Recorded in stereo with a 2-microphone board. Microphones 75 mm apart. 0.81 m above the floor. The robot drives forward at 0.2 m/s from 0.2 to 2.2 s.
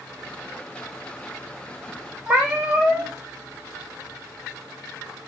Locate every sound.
2.3 s a cat meowing: 15° right (ahead or behind), 0.8 m